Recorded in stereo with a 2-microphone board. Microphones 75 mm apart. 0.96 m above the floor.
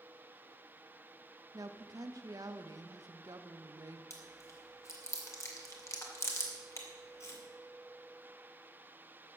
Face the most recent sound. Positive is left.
turn(degrees=40)  # may be behind; listen again after turning